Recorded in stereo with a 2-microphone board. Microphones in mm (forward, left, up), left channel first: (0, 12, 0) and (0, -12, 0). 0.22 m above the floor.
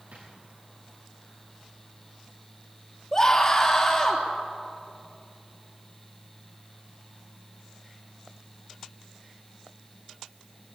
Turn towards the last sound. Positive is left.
turn(degrees=25)  # may be behind; listen again after turning